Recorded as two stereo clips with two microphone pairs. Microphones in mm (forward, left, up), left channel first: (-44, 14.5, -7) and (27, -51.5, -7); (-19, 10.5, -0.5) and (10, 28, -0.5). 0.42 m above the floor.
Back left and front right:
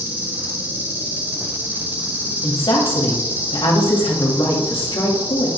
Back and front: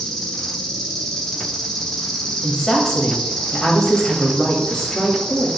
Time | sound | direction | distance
0.0 | an insect | 75° right | 1.9 m
2.4 | a woman speaking | 135° left | 1.7 m